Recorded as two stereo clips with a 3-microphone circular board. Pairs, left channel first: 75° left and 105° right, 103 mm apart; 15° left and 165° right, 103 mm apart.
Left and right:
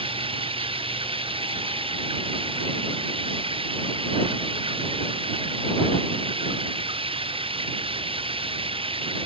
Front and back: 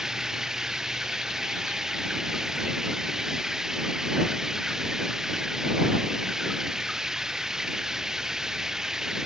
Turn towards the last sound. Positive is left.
turn(degrees=-80)